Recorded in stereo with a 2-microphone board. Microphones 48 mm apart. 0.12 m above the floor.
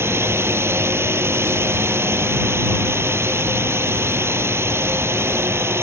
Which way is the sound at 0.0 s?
60° right (ahead or behind).